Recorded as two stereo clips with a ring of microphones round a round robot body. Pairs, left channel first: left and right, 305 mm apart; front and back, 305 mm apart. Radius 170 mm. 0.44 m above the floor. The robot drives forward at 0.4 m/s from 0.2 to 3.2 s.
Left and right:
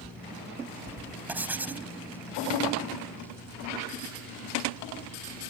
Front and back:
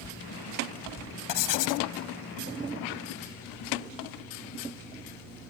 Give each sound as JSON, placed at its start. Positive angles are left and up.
{"t": 1.3, "sound": "writing", "azimuth_deg": -5}